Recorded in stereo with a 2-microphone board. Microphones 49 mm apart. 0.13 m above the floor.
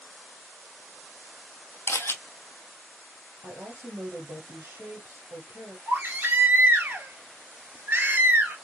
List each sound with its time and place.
1.9 s a camera shutter: 60° left (ahead or behind), 0.8 m
3.4 s a woman speaking: 60° right (ahead or behind), 2.5 m
5.9 s a baby crying: 45° right (ahead or behind), 1.5 m